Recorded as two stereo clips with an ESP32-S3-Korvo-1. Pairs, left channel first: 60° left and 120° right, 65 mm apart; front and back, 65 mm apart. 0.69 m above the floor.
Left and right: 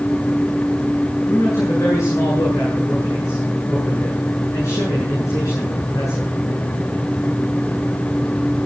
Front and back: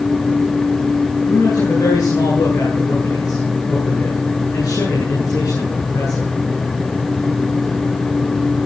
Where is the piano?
No piano in this recording.